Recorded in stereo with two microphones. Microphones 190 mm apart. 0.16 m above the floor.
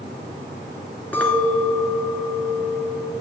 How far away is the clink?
About 1.6 m.